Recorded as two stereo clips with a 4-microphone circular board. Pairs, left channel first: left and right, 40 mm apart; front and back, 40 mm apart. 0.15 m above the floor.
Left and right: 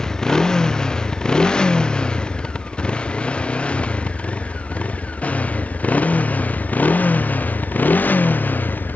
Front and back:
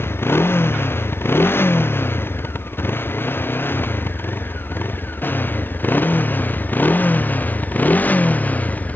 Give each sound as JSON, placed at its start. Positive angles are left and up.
{"t": 0.0, "sound": "a motorcycle", "azimuth_deg": 15}